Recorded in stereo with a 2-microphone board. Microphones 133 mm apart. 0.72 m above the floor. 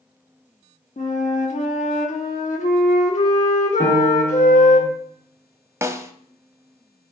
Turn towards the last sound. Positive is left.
turn(degrees=-20)  # may be behind; listen again after turning